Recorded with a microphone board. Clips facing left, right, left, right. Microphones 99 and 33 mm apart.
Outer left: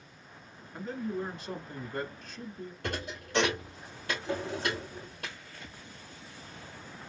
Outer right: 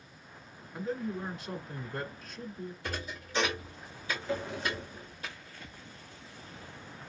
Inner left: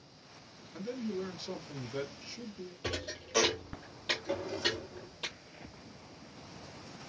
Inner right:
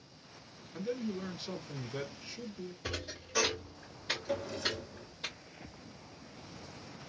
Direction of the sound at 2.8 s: 65° left (ahead or behind).